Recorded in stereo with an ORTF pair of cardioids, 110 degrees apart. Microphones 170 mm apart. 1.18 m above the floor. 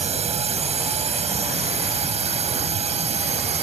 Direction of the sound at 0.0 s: 40° right.